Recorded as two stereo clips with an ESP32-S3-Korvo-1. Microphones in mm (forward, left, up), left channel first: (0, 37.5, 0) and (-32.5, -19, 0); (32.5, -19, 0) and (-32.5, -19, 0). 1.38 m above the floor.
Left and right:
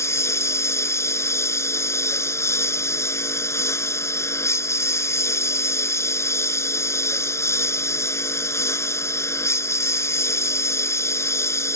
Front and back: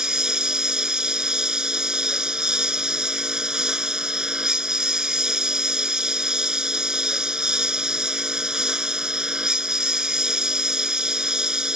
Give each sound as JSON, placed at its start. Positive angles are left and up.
{"t": 0.0, "sound": "a lawn mower", "azimuth_deg": 100}